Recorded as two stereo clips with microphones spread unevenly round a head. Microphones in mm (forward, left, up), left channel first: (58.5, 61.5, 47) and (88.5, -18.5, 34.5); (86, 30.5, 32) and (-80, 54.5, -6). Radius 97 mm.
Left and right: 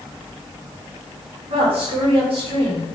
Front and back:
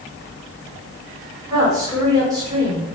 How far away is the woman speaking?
About 5 m.